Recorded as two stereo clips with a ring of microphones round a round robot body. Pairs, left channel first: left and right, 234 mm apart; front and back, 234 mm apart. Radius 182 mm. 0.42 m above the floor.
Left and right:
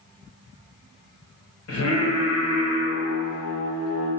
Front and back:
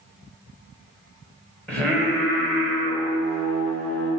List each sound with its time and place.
1.7 s singing: 85° left, 1.9 m